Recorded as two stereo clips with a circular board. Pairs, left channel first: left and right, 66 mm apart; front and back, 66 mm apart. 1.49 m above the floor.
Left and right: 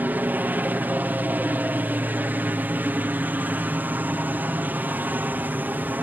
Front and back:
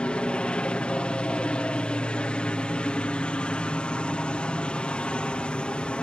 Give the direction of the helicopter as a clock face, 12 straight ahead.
2 o'clock.